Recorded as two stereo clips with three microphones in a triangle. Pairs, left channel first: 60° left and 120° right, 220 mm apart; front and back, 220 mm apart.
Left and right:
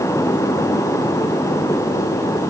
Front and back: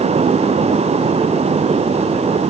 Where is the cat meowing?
I don't hear a cat meowing.